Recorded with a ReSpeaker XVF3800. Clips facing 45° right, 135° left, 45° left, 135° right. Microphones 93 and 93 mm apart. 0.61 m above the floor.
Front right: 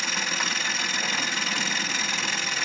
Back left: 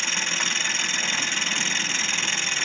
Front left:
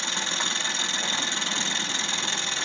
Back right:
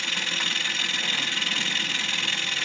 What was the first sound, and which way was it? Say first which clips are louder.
An engine running: front right 1 dB, front left 1 dB; 30° left.